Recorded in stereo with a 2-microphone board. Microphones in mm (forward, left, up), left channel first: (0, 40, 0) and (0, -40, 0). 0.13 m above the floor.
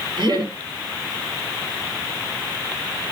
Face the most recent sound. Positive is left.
turn(degrees=-60)  # may be behind; listen again after turning